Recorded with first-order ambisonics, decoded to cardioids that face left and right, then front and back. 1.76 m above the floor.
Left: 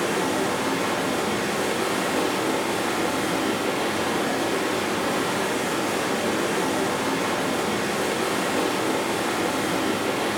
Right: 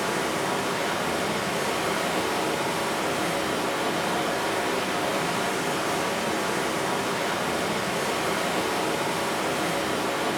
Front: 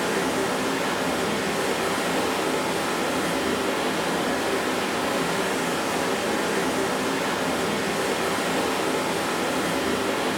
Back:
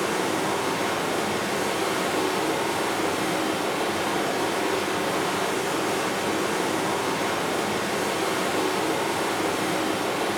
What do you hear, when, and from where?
0.0 s running water: 115° left, 0.7 m